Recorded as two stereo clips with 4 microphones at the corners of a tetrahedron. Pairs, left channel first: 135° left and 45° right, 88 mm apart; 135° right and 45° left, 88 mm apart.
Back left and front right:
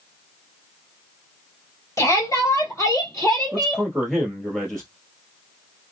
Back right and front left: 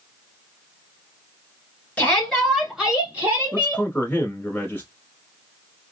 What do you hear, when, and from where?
2.0 s a shout: 160° left, 1.7 m; by 3.9 s 80° left, 1.8 m
3.5 s a man speaking: 140° right, 1.2 m